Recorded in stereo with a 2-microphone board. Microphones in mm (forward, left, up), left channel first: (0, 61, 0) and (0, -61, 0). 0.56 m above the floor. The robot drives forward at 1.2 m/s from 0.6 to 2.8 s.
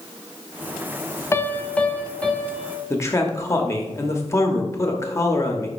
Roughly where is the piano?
Left.